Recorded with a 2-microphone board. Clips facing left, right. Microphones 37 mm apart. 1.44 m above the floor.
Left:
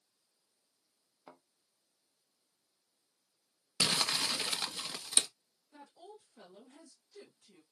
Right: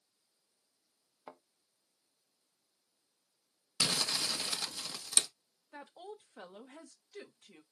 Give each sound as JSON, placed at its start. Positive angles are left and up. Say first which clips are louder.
{"t": 1.3, "sound": "a thud", "louder": "right 4 dB", "side_deg": -20, "distance_m": 0.9}
{"t": 3.8, "sound": "crumpling", "louder": "left 2 dB", "side_deg": 25, "distance_m": 0.9}
{"t": 5.7, "sound": "a woman speaking", "louder": "right 5 dB", "side_deg": -60, "distance_m": 1.0}